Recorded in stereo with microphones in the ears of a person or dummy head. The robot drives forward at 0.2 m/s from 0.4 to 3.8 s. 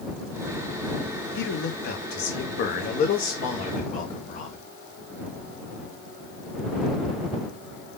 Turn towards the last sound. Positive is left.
turn(degrees=40)  # may be behind; listen again after turning